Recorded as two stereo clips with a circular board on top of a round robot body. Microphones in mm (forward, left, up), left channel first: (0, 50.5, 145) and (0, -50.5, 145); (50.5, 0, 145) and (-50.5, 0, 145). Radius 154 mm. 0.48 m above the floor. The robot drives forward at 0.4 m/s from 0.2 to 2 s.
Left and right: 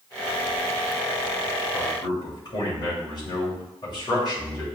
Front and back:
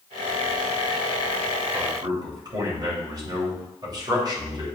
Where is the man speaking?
130° left, 2.5 m; by 4.7 s 135° left, 2.5 m.